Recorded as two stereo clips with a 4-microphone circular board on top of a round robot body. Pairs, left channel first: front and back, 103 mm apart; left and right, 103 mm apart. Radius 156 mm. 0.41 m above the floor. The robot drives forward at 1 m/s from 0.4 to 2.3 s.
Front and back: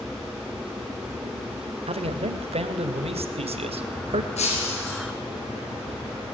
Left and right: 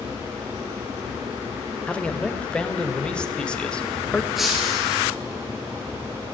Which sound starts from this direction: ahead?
Breaking glass, at 4.4 s.